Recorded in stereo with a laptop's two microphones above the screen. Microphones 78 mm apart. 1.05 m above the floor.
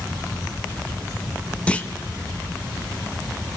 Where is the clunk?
15° left (ahead or behind), 1.0 m.